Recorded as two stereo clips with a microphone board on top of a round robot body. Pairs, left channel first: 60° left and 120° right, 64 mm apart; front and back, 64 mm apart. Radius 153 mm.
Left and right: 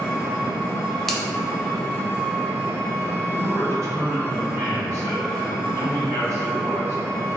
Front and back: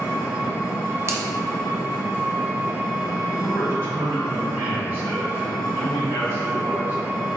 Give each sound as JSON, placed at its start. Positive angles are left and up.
{"t": 0.0, "sound": "an engine running", "azimuth_deg": -120, "distance_m": 1.4}
{"t": 1.1, "sound": "a finger snap", "azimuth_deg": 145, "distance_m": 0.5}
{"t": 3.3, "sound": "a man speaking", "azimuth_deg": -140, "distance_m": 1.5}